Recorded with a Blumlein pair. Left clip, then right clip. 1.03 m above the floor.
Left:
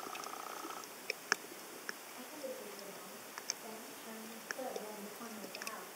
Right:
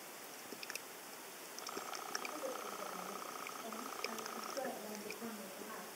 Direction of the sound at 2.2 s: Straight ahead.